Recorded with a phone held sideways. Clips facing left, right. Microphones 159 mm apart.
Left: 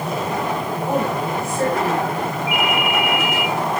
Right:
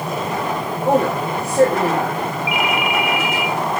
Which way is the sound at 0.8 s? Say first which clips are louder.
Right 5 dB; 70° right (ahead or behind).